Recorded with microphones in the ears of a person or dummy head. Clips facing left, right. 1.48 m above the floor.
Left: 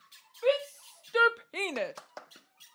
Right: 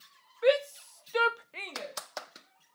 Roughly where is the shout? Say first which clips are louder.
Right 2 dB; right.